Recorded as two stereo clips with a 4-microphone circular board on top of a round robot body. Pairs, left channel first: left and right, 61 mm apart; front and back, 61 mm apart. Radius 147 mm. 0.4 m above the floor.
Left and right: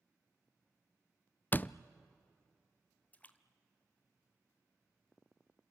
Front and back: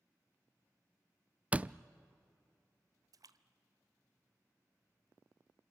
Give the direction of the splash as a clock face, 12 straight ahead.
7 o'clock.